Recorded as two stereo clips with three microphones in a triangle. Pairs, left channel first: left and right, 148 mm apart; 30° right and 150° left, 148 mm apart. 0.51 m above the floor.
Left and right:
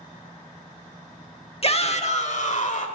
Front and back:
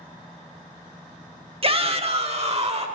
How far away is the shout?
About 1.0 m.